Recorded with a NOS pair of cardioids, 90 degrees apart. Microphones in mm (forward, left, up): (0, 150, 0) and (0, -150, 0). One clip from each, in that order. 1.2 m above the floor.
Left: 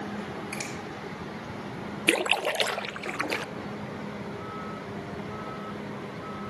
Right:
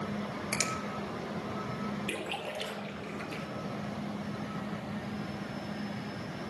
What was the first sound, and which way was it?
A finger snap, 45° right.